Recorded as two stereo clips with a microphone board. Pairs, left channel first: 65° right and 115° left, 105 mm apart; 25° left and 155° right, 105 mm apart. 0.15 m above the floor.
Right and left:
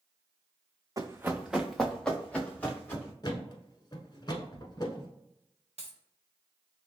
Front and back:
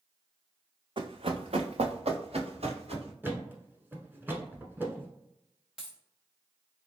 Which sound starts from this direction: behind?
Running footsteps, at 1.0 s.